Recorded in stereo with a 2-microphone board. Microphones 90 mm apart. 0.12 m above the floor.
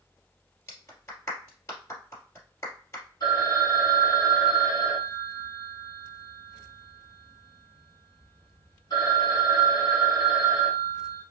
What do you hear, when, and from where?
0.7 s a clap: 30° left (ahead or behind), 2 m
3.2 s a phone ringing: 45° left (ahead or behind), 1.8 m